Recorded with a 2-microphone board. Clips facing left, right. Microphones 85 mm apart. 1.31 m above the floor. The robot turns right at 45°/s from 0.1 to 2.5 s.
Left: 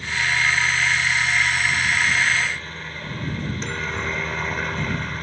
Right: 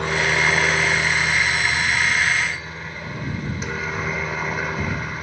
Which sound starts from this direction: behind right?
A helicopter, at 0.0 s.